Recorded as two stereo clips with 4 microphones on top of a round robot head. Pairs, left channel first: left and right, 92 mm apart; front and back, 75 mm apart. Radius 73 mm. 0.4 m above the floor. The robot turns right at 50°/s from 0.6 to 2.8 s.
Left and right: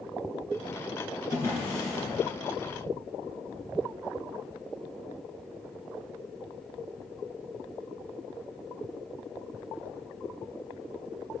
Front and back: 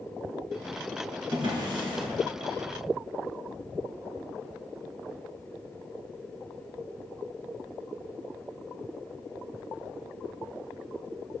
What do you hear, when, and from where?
1.3 s a drawer: 150° left, 1.5 m; by 2.1 s 170° right, 1.5 m